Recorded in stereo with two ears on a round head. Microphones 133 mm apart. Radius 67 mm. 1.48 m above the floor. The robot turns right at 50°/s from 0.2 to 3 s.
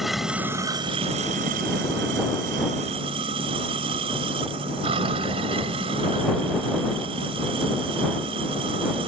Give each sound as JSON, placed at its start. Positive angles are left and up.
{"t": 0.0, "sound": "running water", "azimuth_deg": 180}